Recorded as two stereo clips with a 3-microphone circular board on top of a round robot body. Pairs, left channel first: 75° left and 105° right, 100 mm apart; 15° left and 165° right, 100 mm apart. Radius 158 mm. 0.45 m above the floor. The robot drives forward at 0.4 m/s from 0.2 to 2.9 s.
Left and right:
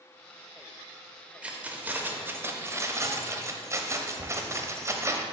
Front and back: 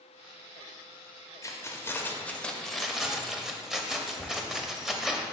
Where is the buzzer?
I don't hear a buzzer.